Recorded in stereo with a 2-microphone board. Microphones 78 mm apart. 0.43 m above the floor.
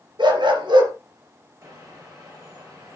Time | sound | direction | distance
0.2 | a dog barking | 80° right | 3 m
1.6 | a bird | 45° right (ahead or behind) | 7.5 m